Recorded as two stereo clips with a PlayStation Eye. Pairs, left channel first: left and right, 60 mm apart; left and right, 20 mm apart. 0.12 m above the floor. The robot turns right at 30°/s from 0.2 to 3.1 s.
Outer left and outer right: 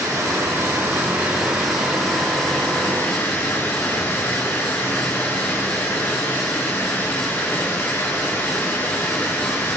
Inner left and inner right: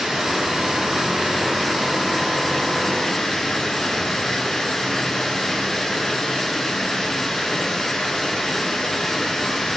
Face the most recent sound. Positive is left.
turn(degrees=30)